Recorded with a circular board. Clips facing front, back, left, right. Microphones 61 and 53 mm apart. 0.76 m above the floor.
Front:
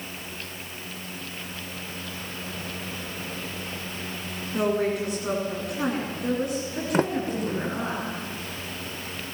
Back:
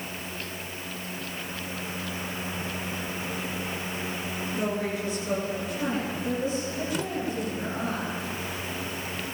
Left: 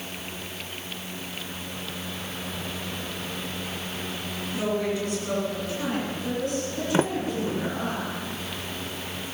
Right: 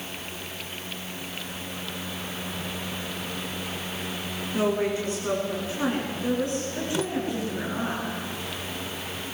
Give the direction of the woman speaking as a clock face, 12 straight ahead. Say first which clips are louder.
Front 6 dB, right 2 dB; 1 o'clock.